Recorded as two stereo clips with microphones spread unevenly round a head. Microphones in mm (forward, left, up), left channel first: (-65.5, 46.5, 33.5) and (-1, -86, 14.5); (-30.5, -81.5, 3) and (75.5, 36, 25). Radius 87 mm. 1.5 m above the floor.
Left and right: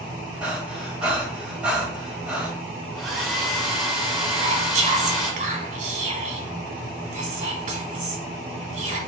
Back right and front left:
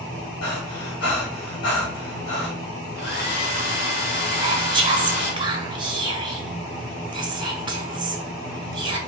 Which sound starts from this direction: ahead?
Whispering, at 4.3 s.